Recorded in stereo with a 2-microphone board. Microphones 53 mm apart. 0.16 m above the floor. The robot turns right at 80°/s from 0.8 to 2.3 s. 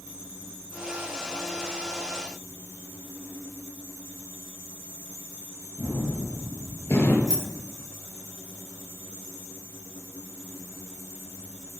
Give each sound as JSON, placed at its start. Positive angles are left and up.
{"t": 5.8, "sound": "a gunshot", "side_deg": 50, "distance_m": 3.0}
{"t": 7.3, "sound": "keys jangling", "side_deg": -85, "distance_m": 5.5}